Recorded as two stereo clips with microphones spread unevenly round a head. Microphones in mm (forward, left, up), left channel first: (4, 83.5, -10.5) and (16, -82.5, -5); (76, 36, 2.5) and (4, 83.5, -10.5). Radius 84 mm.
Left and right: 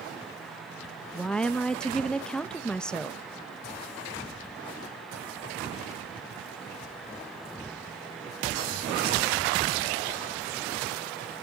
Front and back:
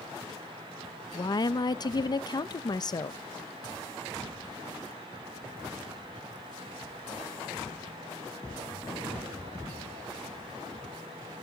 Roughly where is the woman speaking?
Ahead.